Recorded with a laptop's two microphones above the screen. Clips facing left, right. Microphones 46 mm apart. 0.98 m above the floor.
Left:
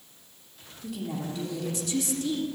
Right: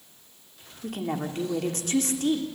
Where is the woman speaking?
50° right (ahead or behind), 3 m.